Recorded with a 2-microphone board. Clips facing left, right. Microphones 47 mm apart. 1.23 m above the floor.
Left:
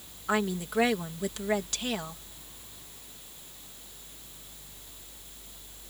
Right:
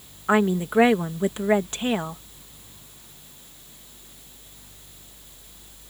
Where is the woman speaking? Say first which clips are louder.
Right 8 dB; 30° right (ahead or behind).